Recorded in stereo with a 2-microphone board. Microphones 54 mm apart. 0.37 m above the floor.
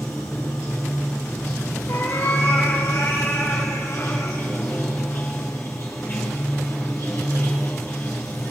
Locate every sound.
0.0 s running water: 60° left (ahead or behind), 3 m
1.9 s a cat meowing: 85° left, 4 m